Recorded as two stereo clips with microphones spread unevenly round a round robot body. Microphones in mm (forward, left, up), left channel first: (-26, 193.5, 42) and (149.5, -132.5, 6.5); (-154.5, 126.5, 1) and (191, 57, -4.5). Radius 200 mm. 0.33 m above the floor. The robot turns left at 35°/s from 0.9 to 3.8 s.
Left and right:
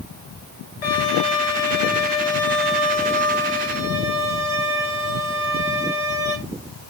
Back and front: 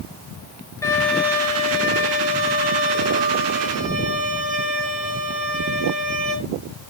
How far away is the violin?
About 6 m.